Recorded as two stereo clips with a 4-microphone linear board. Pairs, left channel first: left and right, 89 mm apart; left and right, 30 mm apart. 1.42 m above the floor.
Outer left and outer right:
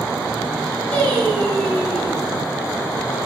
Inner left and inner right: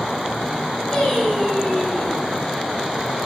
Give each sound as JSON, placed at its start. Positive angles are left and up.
{"t": 0.9, "sound": "singing", "side_deg": 15, "distance_m": 3.0}